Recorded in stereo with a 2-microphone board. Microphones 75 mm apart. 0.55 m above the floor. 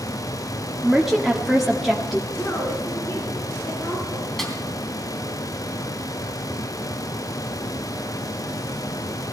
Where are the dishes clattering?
I don't hear dishes clattering.